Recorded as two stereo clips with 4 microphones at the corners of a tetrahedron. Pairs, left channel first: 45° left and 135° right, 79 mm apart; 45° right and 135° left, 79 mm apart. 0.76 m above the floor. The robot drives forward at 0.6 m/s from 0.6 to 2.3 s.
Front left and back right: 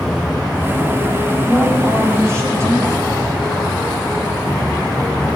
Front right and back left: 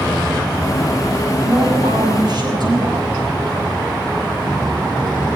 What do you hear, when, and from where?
1.4 s a woman speaking: 170° left, 5.5 m